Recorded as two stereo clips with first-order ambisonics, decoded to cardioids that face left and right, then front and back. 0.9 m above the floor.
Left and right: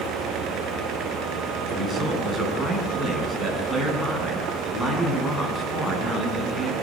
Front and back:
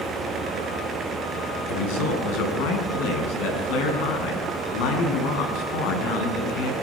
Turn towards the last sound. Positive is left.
turn(degrees=10)